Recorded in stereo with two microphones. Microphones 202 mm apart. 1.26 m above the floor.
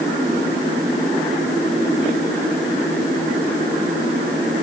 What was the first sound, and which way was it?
Only background noise.